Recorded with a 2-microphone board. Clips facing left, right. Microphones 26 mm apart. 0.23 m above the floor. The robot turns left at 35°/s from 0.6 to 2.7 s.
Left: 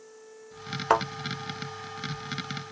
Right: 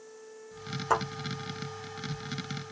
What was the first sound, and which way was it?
A thud, 50° left (ahead or behind).